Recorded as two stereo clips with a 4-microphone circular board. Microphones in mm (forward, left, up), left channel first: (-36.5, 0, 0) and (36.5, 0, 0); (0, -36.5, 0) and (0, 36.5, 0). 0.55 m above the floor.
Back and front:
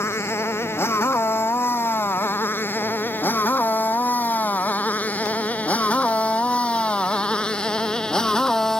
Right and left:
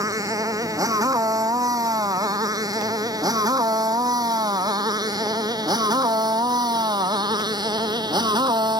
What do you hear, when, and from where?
0.0 s a motorcycle: 125° left; by 8.8 s 100° left